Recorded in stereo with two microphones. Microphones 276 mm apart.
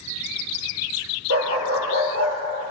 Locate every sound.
1.3 s a dog barking: 55° right (ahead or behind), 4 m